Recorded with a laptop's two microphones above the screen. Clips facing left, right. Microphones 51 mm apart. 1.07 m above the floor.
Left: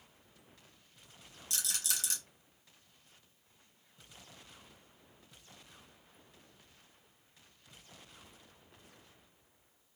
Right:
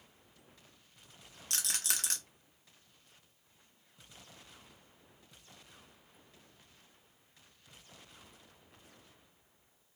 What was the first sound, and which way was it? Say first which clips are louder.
A rattle: right 2 dB; 55° right (ahead or behind).